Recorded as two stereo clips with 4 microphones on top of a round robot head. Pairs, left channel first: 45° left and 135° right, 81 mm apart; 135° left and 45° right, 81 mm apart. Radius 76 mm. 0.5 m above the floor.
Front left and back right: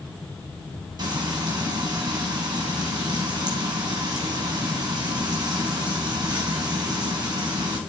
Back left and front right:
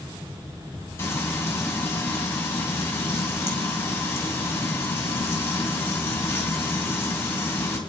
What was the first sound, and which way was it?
Frying, 170° right.